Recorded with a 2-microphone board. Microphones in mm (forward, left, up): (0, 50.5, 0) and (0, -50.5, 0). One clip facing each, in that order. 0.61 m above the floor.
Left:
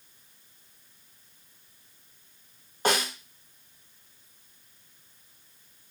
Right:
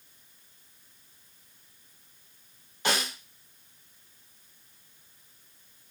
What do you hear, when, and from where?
2.9 s a snare drum: 45° left (ahead or behind), 1.3 m